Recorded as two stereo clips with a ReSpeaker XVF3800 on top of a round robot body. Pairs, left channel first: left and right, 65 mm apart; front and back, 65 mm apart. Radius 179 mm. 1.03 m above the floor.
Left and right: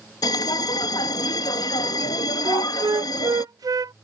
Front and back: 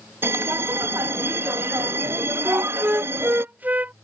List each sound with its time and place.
0.2 s a bell: 120° left
2.5 s a flute: 115° right